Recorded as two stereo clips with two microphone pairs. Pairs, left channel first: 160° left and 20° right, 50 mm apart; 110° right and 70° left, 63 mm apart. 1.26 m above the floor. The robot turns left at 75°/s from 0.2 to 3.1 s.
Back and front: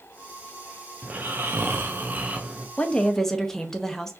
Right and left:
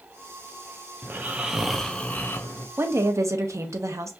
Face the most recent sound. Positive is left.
turn(degrees=80)